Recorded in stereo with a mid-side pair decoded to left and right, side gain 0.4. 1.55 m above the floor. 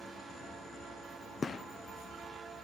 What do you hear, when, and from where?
1.4 s a gunshot: 45° left, 0.6 m